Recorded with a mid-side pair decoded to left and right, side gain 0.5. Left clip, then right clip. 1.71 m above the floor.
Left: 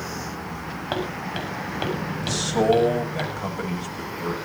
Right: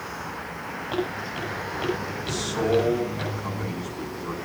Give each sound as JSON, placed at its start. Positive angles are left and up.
{"t": 0.9, "sound": "footsteps", "azimuth_deg": 55, "distance_m": 8.0}
{"t": 2.2, "sound": "a man speaking", "azimuth_deg": 65, "distance_m": 9.0}